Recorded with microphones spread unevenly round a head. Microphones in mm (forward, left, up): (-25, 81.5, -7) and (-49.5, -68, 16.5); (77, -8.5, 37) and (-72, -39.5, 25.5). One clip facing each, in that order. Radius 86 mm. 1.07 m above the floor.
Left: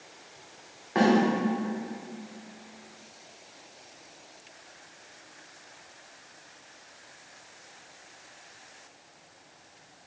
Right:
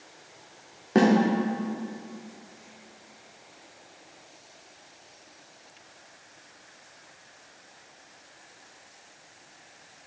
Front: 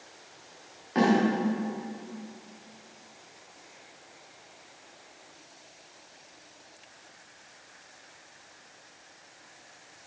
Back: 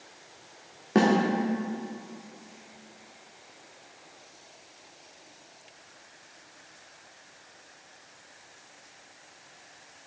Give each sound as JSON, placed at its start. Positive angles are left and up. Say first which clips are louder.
{"t": 0.9, "sound": "a snare drum", "louder": "right 2 dB, back 1 dB", "azimuth_deg": -135, "distance_m": 1.5}